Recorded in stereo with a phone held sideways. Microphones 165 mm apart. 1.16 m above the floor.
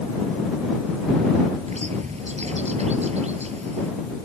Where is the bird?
40° right (ahead or behind).